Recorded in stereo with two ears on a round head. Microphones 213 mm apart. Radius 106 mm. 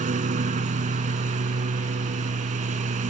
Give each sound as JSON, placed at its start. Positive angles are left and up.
{"t": 0.0, "sound": "a lawn mower", "side_deg": -35}